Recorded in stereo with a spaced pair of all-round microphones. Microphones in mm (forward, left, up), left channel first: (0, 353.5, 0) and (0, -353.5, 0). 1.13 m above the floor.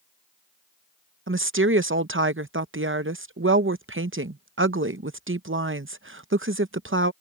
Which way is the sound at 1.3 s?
20° right (ahead or behind).